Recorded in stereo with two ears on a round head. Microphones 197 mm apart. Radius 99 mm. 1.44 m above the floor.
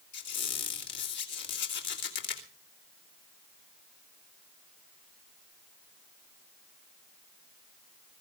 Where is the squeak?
55° left (ahead or behind), 3 m.